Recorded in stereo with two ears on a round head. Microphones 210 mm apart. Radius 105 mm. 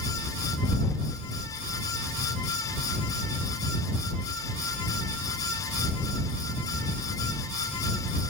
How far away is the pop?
No pop in this recording.